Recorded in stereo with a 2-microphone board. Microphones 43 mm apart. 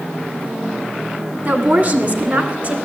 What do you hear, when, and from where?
1.4 s a woman speaking: 45° right (ahead or behind), 1.7 m; by 2.8 s 40° right (ahead or behind), 2.5 m